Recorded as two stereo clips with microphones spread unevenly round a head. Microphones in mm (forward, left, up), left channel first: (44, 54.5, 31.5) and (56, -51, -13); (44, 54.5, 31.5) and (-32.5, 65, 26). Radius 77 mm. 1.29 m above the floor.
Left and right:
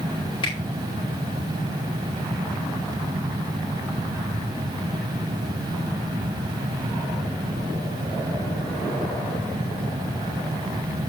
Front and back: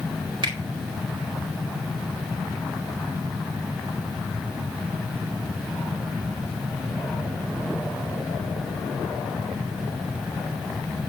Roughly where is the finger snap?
Behind left.